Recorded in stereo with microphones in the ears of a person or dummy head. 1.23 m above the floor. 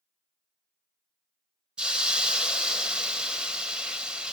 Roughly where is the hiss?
Centre.